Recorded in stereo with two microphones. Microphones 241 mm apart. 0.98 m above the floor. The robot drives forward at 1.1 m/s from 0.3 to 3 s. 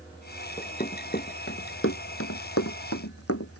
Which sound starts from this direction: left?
Running footsteps, at 0.6 s.